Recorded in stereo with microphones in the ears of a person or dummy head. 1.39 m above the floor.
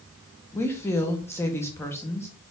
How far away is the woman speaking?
About 1.5 m.